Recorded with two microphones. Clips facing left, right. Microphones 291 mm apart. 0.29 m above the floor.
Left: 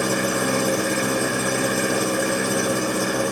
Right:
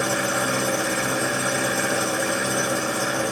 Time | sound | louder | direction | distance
0.0 | an engine running | left 3 dB | 45° left (ahead or behind) | 0.9 m